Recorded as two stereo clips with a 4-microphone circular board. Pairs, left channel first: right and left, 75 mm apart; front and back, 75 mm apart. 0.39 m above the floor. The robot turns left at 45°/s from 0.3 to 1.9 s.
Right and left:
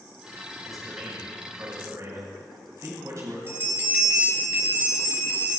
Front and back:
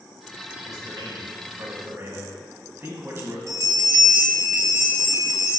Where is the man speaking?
175° right, 2.5 m; by 3.4 s 125° left, 2.5 m.